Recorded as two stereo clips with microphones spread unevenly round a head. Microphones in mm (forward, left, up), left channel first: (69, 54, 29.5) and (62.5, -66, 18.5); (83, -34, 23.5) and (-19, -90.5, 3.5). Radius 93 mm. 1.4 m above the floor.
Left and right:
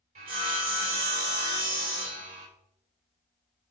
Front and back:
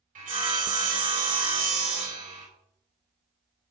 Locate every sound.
0.1 s sawing: 150° right, 3 m